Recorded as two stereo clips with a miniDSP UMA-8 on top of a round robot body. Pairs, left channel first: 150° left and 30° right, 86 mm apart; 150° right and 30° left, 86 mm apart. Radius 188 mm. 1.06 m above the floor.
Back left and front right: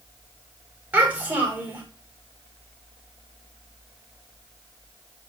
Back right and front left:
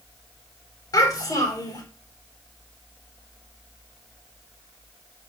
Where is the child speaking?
105° right, 6 m.